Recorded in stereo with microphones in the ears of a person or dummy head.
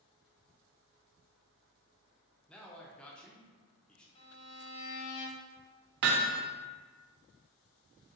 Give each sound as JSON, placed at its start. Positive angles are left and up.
{"t": 2.5, "sound": "a man speaking", "side_deg": 5, "distance_m": 0.6}
{"t": 4.2, "sound": "a violin", "side_deg": 30, "distance_m": 1.0}
{"t": 6.0, "sound": "hammering", "side_deg": -55, "distance_m": 0.6}